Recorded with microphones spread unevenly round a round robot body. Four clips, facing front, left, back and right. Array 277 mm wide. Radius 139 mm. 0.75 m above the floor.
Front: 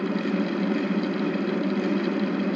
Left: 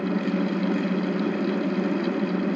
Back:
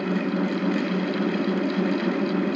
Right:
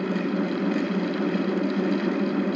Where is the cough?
I don't hear a cough.